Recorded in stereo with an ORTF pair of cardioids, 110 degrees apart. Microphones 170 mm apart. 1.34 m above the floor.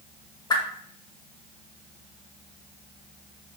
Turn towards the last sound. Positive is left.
turn(degrees=25)